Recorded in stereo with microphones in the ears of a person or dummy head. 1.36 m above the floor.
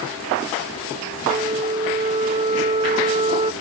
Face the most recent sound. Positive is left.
turn(degrees=-20)  # may be behind; listen again after turning